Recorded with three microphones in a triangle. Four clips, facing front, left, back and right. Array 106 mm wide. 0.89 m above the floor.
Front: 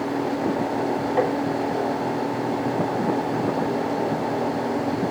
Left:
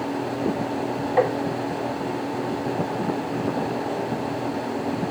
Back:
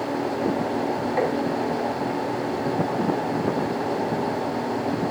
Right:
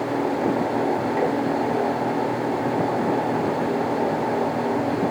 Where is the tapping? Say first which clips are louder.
Left 5 dB, front 2 dB; 75° left, 4.5 m.